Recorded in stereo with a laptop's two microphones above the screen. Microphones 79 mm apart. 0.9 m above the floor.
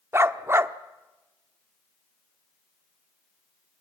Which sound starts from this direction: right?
A dog barking, at 0.1 s.